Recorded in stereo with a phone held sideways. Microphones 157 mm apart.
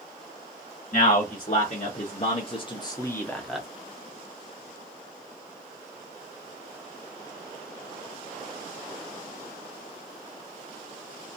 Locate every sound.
0.9 s a man speaking: 50° left (ahead or behind), 1.4 m; by 3.7 s 5° right (ahead or behind), 0.7 m